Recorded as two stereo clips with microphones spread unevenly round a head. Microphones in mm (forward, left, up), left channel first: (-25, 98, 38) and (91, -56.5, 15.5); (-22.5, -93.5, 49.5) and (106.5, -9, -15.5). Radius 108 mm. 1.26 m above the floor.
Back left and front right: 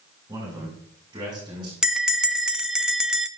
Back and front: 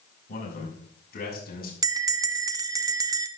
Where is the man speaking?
125° right, 5.5 m; by 1.7 s 120° right, 6 m.